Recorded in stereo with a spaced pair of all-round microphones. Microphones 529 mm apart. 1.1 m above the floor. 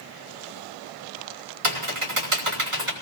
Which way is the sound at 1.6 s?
65° right (ahead or behind).